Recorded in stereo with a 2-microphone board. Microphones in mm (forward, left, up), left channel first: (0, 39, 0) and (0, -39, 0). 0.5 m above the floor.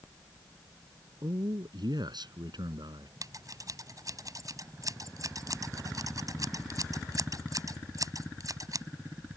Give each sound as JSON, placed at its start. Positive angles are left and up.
{"t": 1.2, "sound": "a man speaking", "side_deg": -70}
{"t": 3.2, "sound": "scissors", "side_deg": -50}